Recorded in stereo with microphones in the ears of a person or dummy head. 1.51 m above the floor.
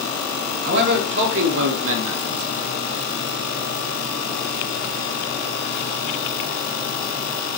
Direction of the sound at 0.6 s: 60° right (ahead or behind).